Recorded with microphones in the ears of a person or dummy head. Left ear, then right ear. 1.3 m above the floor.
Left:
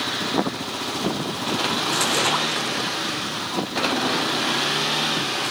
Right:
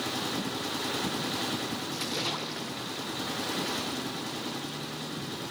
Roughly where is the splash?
Left.